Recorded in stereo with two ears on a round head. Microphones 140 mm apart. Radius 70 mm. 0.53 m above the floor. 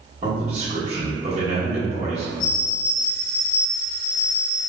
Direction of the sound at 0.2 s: 35° right (ahead or behind).